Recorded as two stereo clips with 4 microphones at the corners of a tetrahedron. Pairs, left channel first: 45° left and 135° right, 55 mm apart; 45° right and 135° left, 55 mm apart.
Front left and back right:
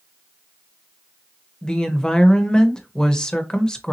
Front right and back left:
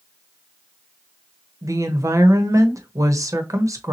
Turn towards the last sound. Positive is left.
turn(degrees=120)